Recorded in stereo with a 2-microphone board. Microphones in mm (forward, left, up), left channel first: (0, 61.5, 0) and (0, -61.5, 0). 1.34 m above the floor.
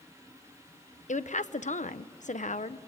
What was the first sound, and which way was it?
A woman speaking, 85° left.